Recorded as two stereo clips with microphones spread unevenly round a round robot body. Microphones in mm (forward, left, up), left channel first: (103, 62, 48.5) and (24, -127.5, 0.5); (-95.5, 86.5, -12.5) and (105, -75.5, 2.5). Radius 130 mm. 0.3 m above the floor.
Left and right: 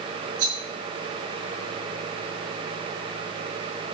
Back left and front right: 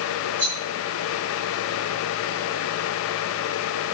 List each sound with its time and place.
0.4 s a rattle: 135° right, 4.5 m